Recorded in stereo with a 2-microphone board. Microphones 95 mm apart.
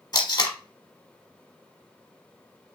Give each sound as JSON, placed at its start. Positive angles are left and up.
{"t": 0.1, "sound": "tape being pulled", "side_deg": 45, "distance_m": 1.2}